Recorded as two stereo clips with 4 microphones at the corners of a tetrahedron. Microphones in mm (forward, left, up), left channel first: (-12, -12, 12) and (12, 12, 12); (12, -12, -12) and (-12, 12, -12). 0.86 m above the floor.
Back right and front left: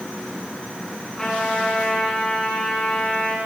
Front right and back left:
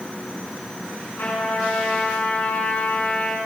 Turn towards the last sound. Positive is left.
turn(degrees=-60)